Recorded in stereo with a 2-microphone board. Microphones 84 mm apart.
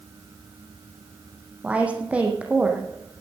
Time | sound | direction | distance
1.6 | a woman speaking | 15° right (ahead or behind) | 4.5 m